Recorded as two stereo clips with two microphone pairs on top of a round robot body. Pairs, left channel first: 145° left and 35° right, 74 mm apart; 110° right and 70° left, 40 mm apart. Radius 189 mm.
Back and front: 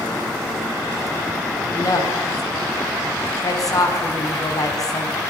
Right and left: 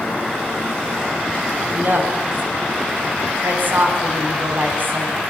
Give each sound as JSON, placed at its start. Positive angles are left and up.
{"t": 1.7, "sound": "a woman speaking", "azimuth_deg": 110, "distance_m": 6.0}